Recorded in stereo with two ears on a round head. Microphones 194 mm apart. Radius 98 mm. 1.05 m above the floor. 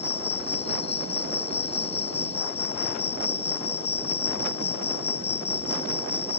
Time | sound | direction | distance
0.0 | an insect | 30° left (ahead or behind) | ?